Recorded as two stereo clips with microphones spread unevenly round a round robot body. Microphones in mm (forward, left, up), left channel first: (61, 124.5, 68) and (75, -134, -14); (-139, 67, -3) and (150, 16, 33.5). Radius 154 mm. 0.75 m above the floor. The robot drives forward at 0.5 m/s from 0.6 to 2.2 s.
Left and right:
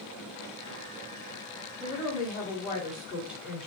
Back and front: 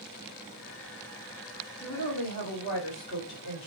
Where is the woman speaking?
165° right, 1.4 m; by 3.7 s 170° right, 1.6 m.